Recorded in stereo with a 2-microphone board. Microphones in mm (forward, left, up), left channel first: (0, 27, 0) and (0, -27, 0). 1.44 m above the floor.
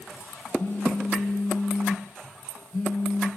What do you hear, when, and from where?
0.6 s a phone buzzing: 40° left (ahead or behind), 2 m